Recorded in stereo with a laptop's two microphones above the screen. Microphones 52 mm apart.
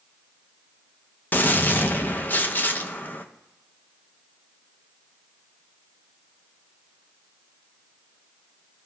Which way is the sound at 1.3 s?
35° left (ahead or behind).